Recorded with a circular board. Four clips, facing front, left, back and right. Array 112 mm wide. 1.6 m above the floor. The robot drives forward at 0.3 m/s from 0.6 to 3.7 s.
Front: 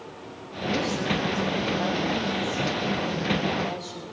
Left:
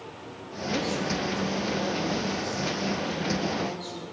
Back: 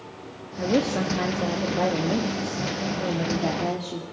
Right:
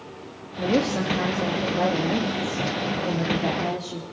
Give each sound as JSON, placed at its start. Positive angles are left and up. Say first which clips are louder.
{"t": 0.6, "sound": "a woman speaking", "louder": "right 6 dB, back 4 dB", "azimuth_deg": -135, "distance_m": 2.0}